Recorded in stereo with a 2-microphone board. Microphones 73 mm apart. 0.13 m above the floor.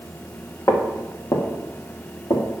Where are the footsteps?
45° left (ahead or behind), 2 m; by 2.4 s 65° left (ahead or behind), 3 m.